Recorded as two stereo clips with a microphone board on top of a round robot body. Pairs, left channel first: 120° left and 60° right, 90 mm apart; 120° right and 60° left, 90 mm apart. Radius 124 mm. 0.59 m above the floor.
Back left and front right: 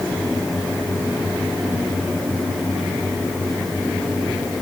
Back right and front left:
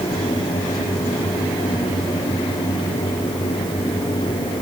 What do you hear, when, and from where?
Only background noise.